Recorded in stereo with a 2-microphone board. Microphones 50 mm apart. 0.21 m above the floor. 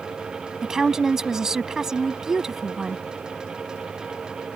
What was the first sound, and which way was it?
A woman speaking, 10° right (ahead or behind).